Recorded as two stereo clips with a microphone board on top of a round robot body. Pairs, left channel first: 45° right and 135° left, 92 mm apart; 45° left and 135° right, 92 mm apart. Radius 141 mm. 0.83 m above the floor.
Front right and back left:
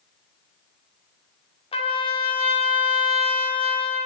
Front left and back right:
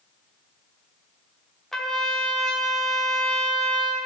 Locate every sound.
1.7 s a trumpet: 40° right, 2.5 m